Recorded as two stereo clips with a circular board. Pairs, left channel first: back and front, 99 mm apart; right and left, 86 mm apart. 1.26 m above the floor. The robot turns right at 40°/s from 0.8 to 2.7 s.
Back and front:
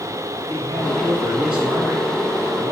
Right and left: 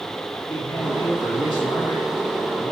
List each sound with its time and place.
0.4 s a man speaking: 105° right, 4 m; by 2.7 s 25° right, 4 m